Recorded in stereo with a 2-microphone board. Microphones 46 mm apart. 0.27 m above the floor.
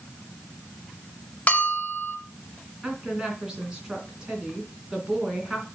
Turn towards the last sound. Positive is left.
turn(degrees=-15)  # may be behind; listen again after turning